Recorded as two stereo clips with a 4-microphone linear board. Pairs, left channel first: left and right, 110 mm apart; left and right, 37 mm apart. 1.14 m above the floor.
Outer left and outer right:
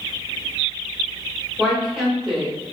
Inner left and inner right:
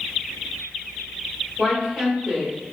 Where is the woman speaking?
5° right (ahead or behind), 1.5 m.